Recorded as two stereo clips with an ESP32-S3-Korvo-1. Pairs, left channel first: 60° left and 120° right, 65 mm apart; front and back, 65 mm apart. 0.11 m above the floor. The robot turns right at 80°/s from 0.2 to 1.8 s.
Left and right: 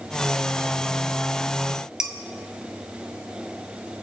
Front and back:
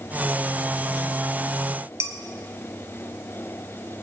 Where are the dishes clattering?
165° left, 1.2 m.